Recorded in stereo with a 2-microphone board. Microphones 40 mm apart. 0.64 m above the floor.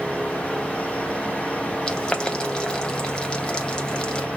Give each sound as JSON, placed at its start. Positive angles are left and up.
{"t": 1.9, "sound": "boiling", "side_deg": 20, "distance_m": 0.6}